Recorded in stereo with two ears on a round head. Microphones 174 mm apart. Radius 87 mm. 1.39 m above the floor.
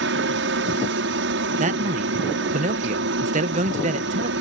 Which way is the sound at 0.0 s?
65° right (ahead or behind).